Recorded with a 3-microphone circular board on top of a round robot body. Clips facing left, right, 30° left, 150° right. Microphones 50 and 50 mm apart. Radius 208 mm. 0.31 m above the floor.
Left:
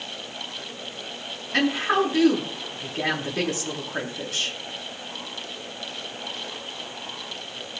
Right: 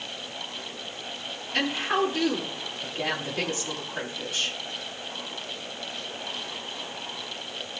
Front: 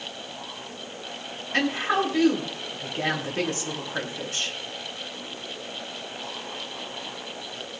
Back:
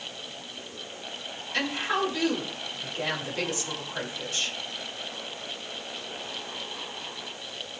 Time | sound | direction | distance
1.5 | a woman speaking | 80° left | 8 m